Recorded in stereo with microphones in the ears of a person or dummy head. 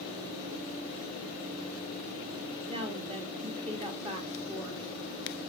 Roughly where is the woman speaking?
Right.